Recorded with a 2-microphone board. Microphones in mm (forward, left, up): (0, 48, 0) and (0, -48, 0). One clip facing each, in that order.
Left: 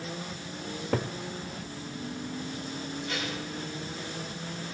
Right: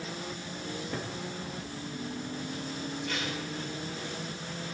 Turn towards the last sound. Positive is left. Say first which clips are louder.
# left 1 dB
turn(degrees=10)  # may be behind; listen again after turning